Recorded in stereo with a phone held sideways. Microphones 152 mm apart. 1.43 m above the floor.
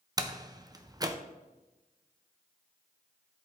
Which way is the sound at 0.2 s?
25° right (ahead or behind).